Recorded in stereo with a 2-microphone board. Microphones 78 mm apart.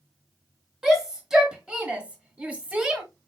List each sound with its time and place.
0.8 s a shout: 5° right (ahead or behind), 1.5 m; by 3.0 s 15° right (ahead or behind), 1.5 m